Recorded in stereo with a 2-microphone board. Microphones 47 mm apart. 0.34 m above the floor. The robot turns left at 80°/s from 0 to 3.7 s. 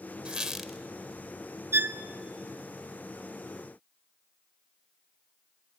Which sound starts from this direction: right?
A violin, at 1.7 s.